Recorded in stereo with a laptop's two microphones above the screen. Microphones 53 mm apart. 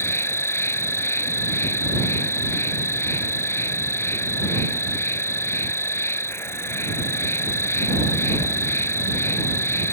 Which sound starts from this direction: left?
An insect, at 0.0 s.